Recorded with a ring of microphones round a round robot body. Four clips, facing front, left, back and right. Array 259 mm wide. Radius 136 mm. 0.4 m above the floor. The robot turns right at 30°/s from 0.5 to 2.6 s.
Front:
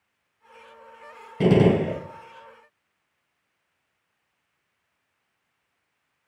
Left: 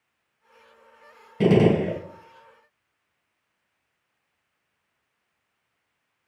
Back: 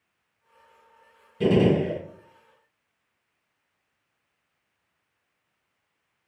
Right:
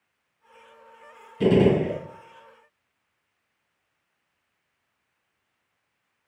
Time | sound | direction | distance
1.4 | a gunshot | 45° left | 1.7 m